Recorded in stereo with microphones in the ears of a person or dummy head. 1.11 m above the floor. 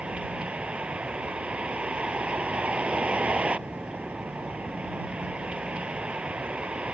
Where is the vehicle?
5° right (ahead or behind).